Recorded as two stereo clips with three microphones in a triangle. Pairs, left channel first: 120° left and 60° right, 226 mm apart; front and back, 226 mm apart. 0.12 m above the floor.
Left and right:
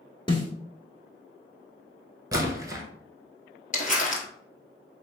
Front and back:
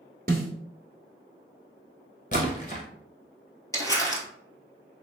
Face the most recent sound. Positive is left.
turn(degrees=70)